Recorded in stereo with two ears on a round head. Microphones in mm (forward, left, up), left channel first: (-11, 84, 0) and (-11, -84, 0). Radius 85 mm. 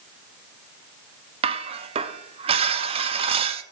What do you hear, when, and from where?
1.4 s dishes clattering: 30° right (ahead or behind), 0.5 m